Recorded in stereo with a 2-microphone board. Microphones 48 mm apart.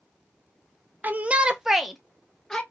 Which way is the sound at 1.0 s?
40° right (ahead or behind).